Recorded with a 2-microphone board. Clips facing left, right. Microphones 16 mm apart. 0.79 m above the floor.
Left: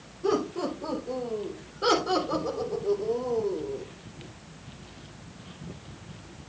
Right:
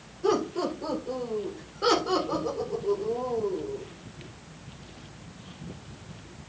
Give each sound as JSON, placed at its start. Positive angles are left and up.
{"t": 0.2, "sound": "laughter", "side_deg": -20, "distance_m": 4.0}